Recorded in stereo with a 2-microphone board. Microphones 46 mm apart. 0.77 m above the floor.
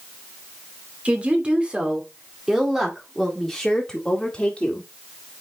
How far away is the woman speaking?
About 2.5 m.